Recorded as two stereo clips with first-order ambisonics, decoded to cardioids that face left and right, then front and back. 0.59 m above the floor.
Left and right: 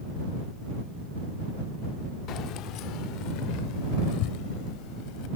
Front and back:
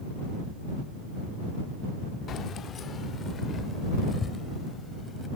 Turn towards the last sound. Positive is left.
turn(degrees=70)